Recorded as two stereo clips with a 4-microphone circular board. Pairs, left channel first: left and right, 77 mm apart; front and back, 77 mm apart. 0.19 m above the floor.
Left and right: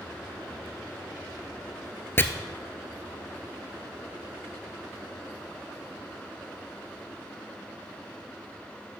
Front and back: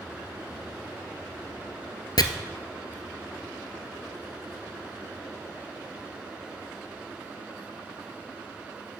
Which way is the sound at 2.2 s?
30° left.